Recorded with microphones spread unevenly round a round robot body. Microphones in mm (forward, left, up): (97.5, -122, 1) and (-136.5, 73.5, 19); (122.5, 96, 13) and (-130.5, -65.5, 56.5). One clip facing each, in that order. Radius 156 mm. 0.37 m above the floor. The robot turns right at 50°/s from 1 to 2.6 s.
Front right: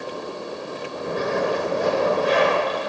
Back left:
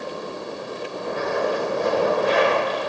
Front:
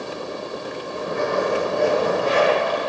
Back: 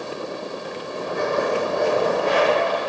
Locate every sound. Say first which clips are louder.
1.1 s a zipper: front right 1 dB, front 1 dB; 95° right, 5 m; by 2.8 s 20° right, 5 m